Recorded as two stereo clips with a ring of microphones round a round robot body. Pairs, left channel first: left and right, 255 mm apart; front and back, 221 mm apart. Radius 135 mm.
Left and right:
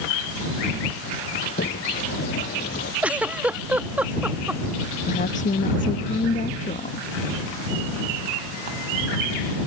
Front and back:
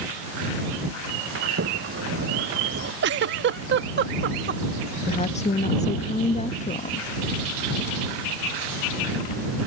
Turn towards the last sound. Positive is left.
turn(degrees=45)